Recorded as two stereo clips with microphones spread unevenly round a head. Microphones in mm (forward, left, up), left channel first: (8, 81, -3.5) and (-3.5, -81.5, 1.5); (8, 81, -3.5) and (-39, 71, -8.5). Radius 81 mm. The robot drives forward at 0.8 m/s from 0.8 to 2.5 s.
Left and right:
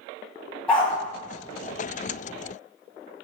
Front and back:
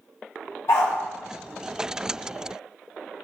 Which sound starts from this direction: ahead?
A dog barking, at 0.7 s.